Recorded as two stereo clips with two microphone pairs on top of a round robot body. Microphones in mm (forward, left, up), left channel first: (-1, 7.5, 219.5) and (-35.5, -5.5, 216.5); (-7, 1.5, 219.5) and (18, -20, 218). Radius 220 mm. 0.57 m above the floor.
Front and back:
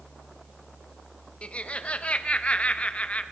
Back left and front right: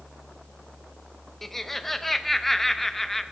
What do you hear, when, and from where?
1.4 s laughter: 60° left, 1.2 m